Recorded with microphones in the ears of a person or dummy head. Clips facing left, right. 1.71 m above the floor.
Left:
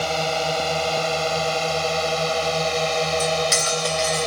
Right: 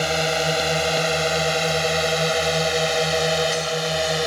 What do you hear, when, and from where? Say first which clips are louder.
0.0 s a drone: right 1 dB; 20° right (ahead or behind); by 4.3 s 10° right (ahead or behind)
3.2 s cutlery clinking: right 1 dB; 75° left (ahead or behind)